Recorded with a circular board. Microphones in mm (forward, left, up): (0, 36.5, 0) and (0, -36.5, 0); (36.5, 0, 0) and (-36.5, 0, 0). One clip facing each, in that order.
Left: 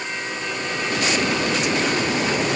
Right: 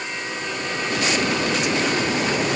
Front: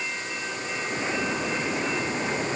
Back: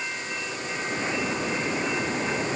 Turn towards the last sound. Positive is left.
No sound to turn to.